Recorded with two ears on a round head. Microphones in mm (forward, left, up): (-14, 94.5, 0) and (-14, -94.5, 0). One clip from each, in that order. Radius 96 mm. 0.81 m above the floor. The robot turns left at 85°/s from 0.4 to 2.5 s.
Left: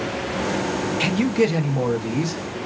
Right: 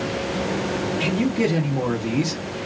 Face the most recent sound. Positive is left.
turn(degrees=-45)